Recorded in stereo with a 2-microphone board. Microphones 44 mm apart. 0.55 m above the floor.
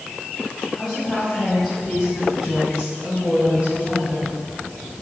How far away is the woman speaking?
About 4 m.